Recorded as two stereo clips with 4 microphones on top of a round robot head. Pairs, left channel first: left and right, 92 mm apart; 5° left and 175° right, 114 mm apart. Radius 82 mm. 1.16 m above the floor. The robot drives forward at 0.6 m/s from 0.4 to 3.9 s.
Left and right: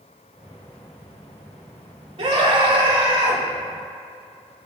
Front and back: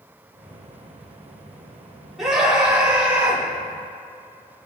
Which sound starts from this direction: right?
A scream, at 2.2 s.